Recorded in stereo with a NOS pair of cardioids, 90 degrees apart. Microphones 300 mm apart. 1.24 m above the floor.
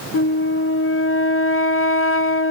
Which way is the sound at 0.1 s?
45° left.